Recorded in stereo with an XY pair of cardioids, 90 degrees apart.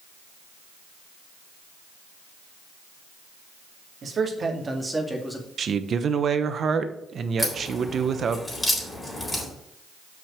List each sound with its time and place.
4.0 s a man speaking: 50° right, 2.5 m; by 5.5 s 10° left, 2 m
5.6 s a man speaking: 55° right, 1.0 m
7.4 s a crack: 20° left, 3.5 m